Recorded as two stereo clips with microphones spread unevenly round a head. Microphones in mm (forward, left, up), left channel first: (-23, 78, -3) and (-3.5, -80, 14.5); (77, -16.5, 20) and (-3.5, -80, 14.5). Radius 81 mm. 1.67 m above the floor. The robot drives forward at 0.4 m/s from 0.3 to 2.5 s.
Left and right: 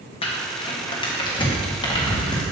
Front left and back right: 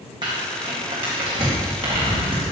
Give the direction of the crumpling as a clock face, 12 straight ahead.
7 o'clock.